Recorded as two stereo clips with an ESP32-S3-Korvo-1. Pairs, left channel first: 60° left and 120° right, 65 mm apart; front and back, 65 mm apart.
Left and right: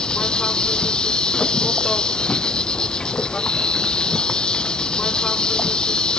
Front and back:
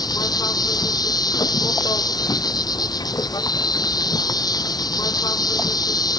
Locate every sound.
0.0 s an insect: 20° right